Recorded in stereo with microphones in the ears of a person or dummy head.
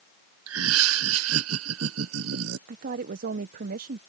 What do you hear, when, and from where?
0.5 s laughter: 85° right
2.7 s a woman speaking: 55° right (ahead or behind)